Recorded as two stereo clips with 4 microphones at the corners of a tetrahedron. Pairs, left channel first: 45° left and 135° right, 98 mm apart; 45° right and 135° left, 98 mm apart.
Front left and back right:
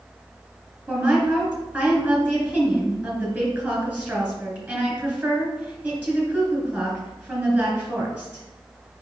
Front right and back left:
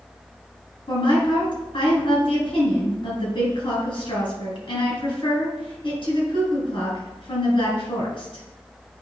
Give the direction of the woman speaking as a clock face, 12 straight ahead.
2 o'clock.